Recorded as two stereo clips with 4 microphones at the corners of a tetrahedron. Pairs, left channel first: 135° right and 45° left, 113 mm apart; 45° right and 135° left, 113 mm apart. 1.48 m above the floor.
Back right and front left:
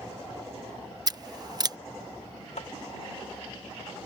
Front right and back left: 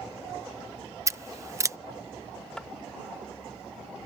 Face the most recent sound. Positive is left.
turn(degrees=-130)